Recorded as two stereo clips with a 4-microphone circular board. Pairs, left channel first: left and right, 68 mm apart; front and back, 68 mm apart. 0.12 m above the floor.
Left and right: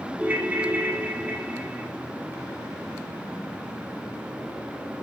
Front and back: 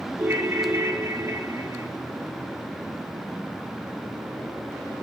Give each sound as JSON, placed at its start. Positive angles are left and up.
{"t": 0.2, "sound": "a ringtone", "azimuth_deg": -145, "distance_m": 1.1}